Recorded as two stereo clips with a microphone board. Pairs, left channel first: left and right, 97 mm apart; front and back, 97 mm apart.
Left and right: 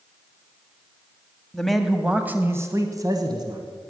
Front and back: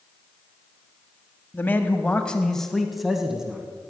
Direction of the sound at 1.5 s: 20° left.